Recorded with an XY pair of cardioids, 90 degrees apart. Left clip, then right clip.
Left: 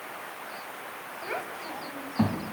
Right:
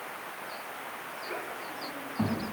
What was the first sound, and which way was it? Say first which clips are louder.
A child speaking: left 4 dB; 55° left.